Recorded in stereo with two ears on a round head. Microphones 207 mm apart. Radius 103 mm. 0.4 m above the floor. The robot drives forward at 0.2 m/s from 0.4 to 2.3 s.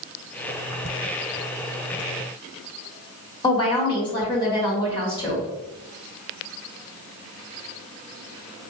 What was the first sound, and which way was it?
A woman speaking, 20° left (ahead or behind).